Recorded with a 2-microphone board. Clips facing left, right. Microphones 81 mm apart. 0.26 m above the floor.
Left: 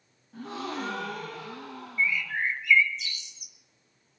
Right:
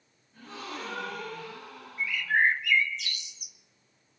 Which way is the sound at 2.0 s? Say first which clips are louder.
Right 3 dB; 60° right (ahead or behind).